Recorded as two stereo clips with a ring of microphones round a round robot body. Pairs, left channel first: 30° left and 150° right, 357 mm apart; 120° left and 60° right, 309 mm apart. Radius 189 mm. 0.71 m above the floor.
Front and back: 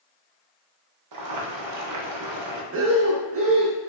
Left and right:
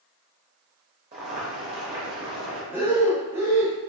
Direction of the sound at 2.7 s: 140° right.